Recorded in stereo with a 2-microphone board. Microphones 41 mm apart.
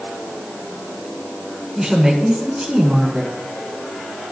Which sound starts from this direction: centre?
A woman speaking, at 1.8 s.